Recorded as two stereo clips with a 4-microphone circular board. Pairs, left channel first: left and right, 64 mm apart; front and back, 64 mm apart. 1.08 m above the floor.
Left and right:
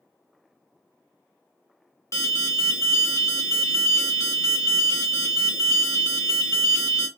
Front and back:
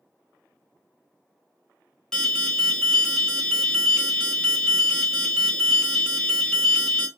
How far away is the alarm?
About 1.2 m.